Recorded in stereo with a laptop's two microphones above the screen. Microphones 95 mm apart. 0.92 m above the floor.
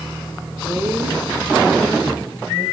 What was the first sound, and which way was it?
A woman speaking, 25° right (ahead or behind).